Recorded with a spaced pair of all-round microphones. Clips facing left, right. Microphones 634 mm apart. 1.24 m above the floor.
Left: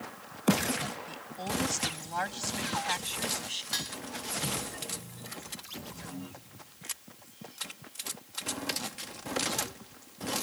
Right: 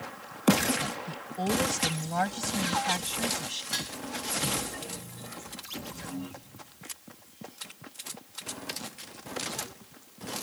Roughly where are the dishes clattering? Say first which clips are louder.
Right 2 dB; right.